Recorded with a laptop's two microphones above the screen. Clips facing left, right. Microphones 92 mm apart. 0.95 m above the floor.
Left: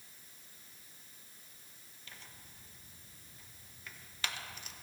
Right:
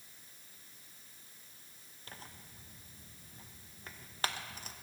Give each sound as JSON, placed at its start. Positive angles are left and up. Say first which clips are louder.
{"t": 2.1, "sound": "tearing paper", "louder": "right 4 dB", "side_deg": -40, "distance_m": 1.0}